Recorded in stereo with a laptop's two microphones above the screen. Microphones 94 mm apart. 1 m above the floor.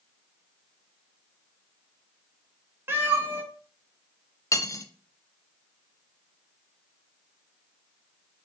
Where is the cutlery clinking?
30° left (ahead or behind), 0.5 m.